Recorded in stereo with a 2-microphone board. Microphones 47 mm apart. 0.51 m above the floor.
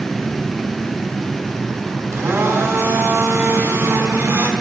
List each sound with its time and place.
2.1 s a blender: 75° right (ahead or behind), 5 m